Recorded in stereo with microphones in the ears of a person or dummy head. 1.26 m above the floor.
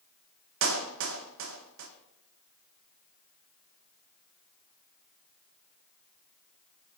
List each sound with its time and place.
0.6 s a clap: 75° right (ahead or behind), 2 m